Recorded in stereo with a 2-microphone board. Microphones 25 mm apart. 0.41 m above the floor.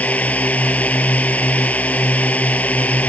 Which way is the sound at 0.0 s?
80° left.